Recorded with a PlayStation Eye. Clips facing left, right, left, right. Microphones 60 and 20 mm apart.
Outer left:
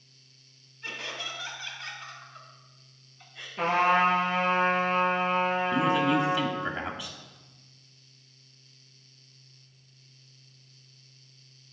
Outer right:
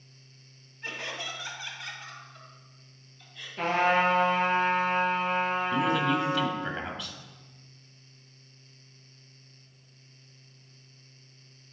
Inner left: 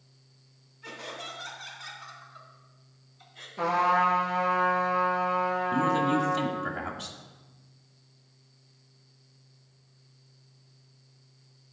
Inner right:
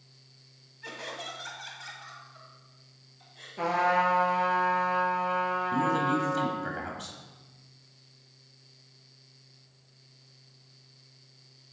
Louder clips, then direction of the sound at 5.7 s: Outer left 2 dB, inner left 2 dB; 10° left (ahead or behind).